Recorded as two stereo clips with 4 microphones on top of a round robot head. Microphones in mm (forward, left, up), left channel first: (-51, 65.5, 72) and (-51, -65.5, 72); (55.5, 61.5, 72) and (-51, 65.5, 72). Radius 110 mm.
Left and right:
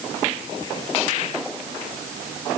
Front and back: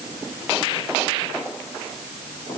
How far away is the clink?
I don't hear a clink.